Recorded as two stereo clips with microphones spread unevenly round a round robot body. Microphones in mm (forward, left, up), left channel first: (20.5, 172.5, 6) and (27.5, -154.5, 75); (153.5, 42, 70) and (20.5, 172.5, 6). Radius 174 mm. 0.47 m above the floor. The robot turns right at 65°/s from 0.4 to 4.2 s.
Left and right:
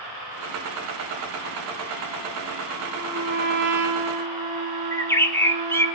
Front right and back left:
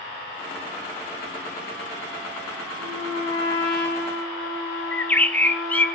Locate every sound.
2.8 s a trumpet: 160° right, 7 m; by 5.9 s 65° right, 7 m
4.9 s a bird: 85° left, 1.1 m